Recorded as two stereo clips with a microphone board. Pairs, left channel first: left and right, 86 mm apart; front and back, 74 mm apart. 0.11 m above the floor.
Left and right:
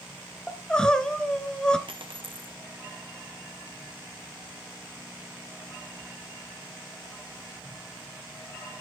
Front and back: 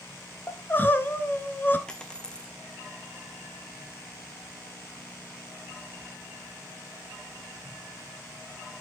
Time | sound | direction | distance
0.5 | crying | 20° left | 0.6 m
1.9 | a dropped coin | 80° right | 0.9 m